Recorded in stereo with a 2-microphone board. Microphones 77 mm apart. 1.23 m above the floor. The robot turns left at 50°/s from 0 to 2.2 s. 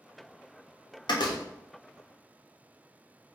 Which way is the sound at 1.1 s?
75° left (ahead or behind).